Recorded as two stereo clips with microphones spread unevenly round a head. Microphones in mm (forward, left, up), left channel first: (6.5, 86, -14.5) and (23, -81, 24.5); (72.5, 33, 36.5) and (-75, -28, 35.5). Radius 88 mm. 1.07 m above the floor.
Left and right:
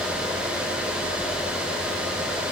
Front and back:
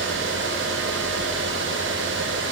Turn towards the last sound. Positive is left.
No sound to turn to.